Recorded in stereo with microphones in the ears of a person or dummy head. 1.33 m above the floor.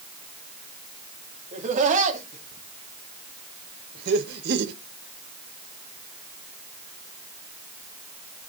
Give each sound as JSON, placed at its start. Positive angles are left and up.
{"t": 1.5, "sound": "laughter", "side_deg": -40, "distance_m": 2.5}